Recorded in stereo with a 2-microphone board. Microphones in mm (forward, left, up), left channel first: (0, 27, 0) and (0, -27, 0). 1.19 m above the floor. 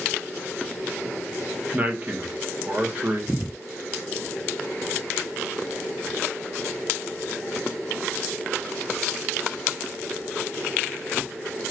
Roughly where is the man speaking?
Right.